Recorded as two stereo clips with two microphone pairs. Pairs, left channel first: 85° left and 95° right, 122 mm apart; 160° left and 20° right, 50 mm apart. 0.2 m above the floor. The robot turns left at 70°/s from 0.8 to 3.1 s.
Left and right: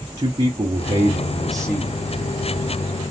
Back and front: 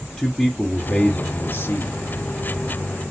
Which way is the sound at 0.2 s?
135° right.